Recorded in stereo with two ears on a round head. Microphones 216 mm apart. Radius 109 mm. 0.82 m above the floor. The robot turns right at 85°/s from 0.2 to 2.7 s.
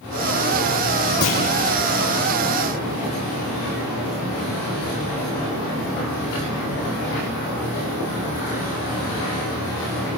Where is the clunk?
65° left (ahead or behind), 8 m; by 1.4 s 50° left (ahead or behind), 8 m.